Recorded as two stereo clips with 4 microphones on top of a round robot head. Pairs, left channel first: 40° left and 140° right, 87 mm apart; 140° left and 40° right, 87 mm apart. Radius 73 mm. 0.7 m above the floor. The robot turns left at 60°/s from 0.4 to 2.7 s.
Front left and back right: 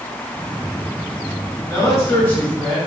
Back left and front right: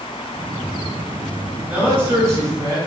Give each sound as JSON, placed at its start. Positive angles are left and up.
{"t": 1.7, "sound": "a man speaking", "azimuth_deg": 20, "distance_m": 1.3}